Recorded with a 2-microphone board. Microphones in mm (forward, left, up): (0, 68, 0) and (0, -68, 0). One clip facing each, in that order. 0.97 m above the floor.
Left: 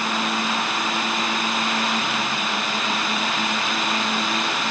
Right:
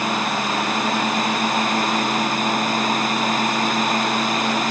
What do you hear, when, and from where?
Only background noise.